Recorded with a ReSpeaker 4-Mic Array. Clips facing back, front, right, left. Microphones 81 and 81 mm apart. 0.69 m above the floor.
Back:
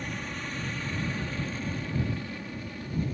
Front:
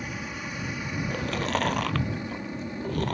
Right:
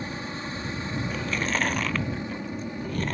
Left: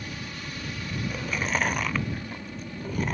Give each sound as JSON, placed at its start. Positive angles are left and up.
{"t": 0.0, "sound": "an aircraft", "azimuth_deg": -75}
{"t": 1.1, "sound": "chewing", "azimuth_deg": 5}